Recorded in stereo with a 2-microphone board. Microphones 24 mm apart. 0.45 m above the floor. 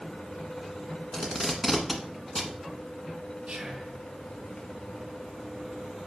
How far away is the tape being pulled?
About 1.5 m.